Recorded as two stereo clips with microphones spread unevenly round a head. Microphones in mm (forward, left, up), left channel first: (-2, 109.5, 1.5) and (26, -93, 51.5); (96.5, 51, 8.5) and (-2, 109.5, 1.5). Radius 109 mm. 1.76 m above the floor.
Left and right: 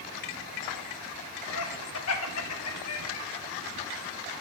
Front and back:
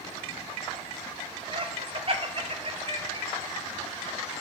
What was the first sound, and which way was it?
Laughter, 110° left.